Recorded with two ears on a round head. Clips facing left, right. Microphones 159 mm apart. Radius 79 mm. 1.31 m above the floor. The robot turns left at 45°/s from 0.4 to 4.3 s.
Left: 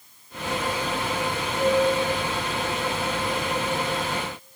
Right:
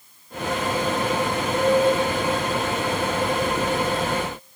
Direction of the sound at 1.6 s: 65° right.